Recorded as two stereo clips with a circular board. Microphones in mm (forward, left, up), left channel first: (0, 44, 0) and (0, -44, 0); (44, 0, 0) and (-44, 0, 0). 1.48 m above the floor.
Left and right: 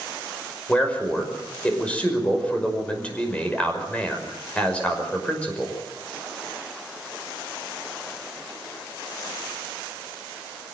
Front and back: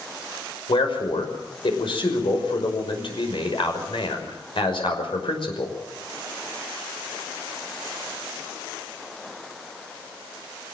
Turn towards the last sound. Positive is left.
turn(degrees=15)